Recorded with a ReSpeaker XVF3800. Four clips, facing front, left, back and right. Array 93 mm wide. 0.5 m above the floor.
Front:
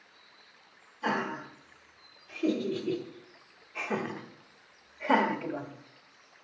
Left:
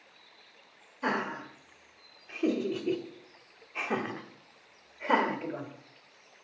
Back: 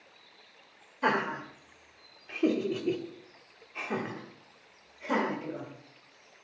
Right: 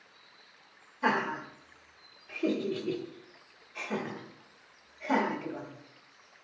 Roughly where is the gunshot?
No gunshot in this recording.